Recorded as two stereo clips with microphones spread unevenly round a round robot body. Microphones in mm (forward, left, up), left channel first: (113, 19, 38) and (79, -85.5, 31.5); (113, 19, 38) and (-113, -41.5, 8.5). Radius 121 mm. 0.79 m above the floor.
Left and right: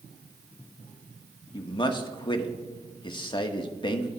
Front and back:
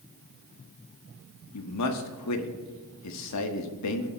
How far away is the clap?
I don't hear a clap.